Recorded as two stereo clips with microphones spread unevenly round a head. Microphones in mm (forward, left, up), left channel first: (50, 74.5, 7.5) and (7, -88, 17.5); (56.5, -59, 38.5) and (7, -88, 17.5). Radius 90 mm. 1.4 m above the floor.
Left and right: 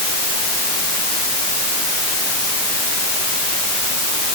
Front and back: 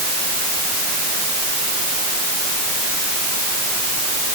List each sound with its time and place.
Only background noise.